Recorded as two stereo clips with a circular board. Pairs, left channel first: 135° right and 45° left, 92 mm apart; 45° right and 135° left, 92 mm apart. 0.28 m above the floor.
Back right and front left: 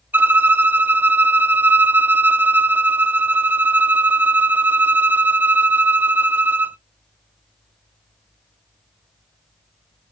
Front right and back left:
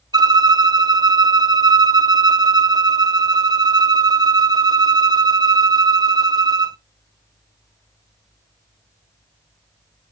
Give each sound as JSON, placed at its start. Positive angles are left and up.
{"t": 0.1, "sound": "a violin", "azimuth_deg": 110, "distance_m": 0.5}